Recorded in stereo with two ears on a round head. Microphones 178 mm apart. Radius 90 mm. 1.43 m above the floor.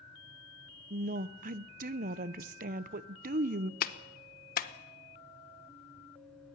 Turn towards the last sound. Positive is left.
turn(degrees=45)  # may be behind; listen again after turning